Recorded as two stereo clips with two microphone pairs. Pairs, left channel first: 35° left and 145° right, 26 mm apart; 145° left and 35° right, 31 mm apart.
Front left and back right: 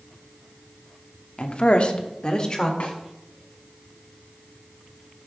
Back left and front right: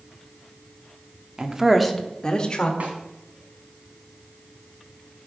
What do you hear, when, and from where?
1.4 s a woman speaking: 20° left, 1.1 m; by 2.7 s 95° left, 1.9 m
2.8 s a snare drum: 5° left, 2.5 m